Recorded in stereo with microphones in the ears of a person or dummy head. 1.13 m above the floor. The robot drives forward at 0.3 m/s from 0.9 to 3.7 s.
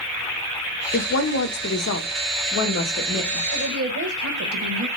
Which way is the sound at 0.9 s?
50° left (ahead or behind).